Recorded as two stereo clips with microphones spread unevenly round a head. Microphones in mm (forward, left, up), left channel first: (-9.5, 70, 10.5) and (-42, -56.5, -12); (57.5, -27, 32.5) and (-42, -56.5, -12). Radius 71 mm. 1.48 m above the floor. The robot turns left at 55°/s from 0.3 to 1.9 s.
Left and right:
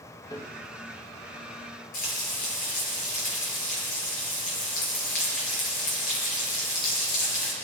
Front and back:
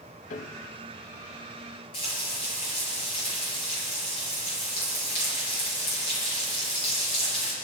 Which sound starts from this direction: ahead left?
Frying, at 1.9 s.